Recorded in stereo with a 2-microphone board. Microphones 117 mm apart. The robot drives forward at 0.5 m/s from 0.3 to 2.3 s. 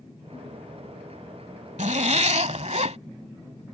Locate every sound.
1.8 s a zipper: 80° right; by 3.0 s 70° right (ahead or behind)